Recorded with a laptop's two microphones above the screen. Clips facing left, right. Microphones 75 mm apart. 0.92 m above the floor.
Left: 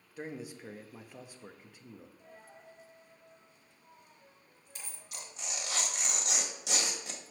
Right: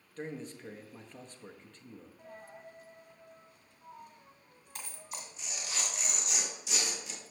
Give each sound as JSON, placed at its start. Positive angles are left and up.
{"t": 0.2, "sound": "a man speaking", "side_deg": 10, "distance_m": 0.8}
{"t": 2.2, "sound": "a dropped coin", "side_deg": -55, "distance_m": 1.7}
{"t": 5.1, "sound": "tearing paper", "side_deg": 70, "distance_m": 1.4}